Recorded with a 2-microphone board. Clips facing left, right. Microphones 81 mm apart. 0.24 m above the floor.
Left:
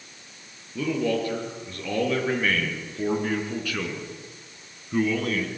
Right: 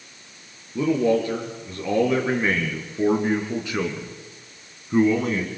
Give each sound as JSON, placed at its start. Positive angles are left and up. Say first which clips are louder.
{"t": 0.8, "sound": "a man speaking", "louder": "right 5 dB", "side_deg": -20, "distance_m": 5.0}